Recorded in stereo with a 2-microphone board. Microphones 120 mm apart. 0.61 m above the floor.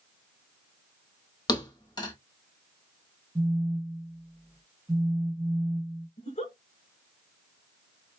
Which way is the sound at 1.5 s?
35° left (ahead or behind).